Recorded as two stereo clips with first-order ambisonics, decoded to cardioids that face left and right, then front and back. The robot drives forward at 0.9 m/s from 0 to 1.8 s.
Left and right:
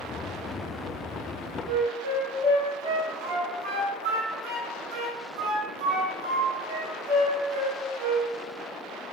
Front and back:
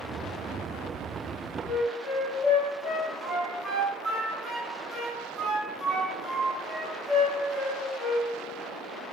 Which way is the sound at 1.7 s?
105° right.